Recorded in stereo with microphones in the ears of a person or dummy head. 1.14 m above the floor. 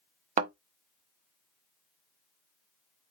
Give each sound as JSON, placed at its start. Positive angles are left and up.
{"t": 0.4, "sound": "a thud", "side_deg": -40, "distance_m": 0.9}